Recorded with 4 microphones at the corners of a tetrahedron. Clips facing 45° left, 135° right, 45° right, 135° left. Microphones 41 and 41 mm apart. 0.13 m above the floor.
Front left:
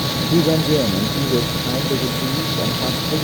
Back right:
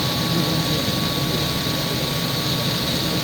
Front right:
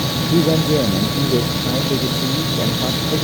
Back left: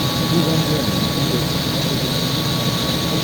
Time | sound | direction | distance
0.3 | a man speaking | 10° left | ?